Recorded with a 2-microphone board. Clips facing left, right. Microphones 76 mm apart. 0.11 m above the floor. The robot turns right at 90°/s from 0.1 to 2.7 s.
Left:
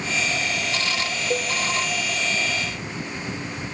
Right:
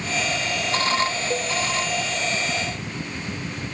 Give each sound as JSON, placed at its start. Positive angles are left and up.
{"t": 1.3, "sound": "a cowbell", "side_deg": 10, "distance_m": 1.3}